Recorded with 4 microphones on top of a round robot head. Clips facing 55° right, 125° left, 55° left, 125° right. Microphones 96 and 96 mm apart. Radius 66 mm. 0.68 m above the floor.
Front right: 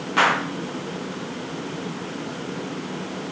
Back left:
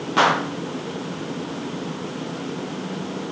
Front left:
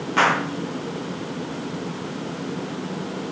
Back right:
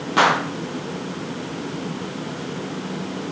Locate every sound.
0.2 s a gunshot: 175° left, 0.6 m